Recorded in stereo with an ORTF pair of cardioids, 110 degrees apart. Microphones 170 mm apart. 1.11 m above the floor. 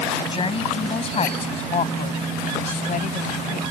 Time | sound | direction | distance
0.1 | a woman speaking | 30° left | ?